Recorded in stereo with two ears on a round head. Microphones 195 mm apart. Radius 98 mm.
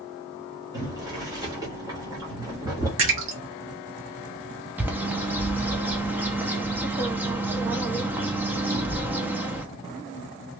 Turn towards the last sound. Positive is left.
turn(degrees=-10)  # may be behind; listen again after turning